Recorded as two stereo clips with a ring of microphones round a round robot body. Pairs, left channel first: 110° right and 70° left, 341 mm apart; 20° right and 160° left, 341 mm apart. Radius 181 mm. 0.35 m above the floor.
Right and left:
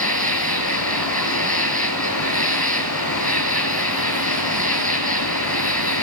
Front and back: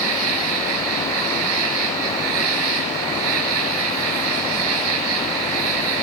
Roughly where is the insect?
Behind.